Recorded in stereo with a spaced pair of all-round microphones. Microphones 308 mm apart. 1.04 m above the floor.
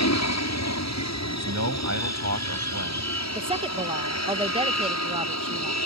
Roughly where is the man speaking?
Right.